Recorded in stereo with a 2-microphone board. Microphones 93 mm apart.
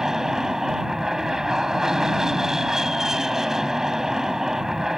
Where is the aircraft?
5° right (ahead or behind).